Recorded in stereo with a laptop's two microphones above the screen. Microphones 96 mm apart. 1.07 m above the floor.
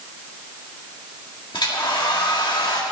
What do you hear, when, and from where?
1.5 s a hair dryer: 55° left (ahead or behind), 1.8 m